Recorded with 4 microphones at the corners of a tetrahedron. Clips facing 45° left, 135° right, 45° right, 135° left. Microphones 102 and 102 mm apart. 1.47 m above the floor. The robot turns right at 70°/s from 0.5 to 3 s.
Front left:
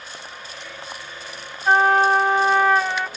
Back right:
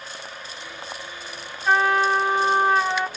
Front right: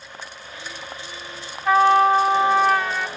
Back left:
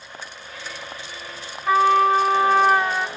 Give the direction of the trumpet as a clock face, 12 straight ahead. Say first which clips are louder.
Front left 3 dB, front right 1 dB; 1 o'clock.